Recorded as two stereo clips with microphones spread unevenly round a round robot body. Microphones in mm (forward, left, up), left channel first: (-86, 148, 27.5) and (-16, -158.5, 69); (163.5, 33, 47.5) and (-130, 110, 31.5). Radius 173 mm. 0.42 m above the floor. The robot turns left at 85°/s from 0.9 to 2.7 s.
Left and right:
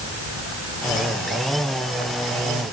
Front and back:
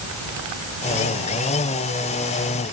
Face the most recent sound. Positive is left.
No sound to turn to.